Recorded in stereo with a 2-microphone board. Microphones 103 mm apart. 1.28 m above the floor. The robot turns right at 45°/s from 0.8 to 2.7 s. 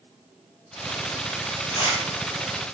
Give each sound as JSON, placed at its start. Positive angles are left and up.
{"t": 1.7, "sound": "tearing paper", "side_deg": 35, "distance_m": 5.5}